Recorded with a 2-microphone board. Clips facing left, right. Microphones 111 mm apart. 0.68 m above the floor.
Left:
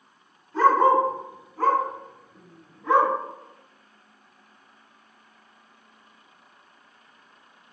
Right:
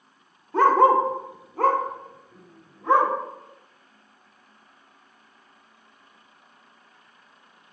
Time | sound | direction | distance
0.5 | a dog barking | 60° right (ahead or behind) | 0.6 m